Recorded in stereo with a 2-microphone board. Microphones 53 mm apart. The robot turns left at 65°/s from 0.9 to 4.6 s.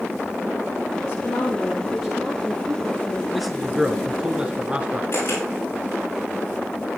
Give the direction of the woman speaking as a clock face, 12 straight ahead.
10 o'clock.